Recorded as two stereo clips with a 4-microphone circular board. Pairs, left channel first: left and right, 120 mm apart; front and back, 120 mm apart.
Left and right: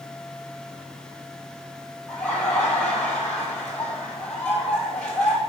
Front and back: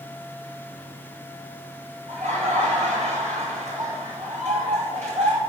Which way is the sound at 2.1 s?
175° left.